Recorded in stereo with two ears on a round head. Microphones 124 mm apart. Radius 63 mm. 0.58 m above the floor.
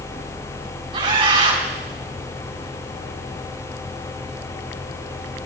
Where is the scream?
35° right (ahead or behind), 5.5 m.